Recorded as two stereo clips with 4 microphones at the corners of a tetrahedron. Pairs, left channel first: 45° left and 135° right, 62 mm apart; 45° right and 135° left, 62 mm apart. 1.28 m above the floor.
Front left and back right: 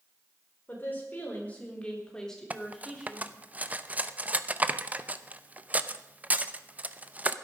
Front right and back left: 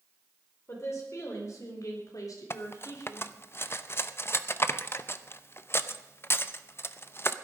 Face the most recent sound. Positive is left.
turn(degrees=-80)